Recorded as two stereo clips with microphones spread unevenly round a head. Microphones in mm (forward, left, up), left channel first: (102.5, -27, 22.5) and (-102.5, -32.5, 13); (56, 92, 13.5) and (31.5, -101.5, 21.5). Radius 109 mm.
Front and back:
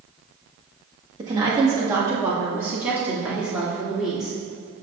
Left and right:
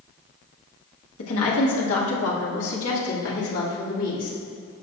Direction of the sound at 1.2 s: 110° left.